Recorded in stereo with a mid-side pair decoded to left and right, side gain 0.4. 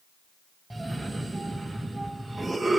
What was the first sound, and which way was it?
A cough, 15° right.